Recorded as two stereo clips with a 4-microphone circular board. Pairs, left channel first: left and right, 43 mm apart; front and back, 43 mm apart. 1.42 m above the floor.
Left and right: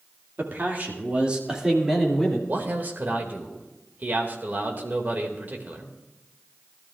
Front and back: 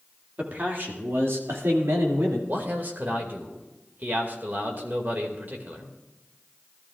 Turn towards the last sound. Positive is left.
turn(degrees=-135)